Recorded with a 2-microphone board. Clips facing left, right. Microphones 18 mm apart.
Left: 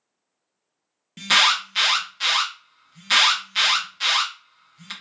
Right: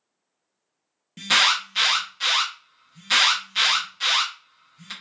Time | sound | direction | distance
1.2 | an alarm | 15° left (ahead or behind) | 0.6 m